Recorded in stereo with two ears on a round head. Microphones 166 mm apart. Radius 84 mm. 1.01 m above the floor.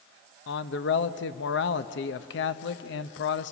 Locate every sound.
0.5 s a man speaking: 70° left (ahead or behind), 0.9 m